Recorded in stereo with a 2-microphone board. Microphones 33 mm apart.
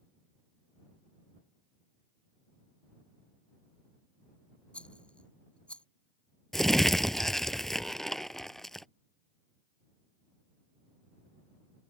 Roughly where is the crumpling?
Centre.